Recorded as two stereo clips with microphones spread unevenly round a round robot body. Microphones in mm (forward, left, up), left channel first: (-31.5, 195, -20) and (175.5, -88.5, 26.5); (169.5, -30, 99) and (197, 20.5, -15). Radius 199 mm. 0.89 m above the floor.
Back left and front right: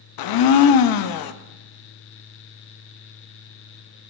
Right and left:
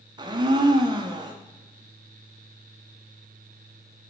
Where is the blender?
90° left, 0.5 m.